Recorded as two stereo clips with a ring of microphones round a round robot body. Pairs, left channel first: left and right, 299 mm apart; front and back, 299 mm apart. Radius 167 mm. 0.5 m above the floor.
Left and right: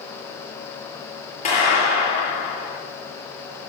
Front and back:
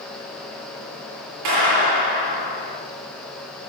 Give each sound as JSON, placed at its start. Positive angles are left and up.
{"t": 1.4, "sound": "a clap", "azimuth_deg": 160, "distance_m": 8.5}